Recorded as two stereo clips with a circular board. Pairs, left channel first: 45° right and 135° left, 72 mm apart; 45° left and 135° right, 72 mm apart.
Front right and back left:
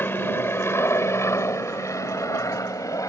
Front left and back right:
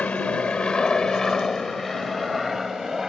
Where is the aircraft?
15° right; by 3.1 s 55° right.